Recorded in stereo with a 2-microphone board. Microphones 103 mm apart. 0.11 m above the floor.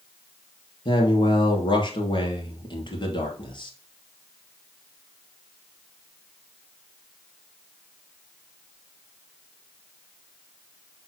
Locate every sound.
0.8 s a man speaking: 45° left (ahead or behind), 2 m